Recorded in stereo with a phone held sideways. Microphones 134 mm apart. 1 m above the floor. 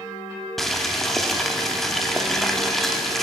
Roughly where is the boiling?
Centre.